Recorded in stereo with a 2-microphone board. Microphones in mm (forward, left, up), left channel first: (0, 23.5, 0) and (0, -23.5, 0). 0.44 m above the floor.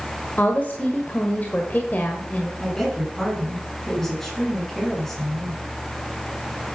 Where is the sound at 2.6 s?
5° left (ahead or behind), 4.5 m.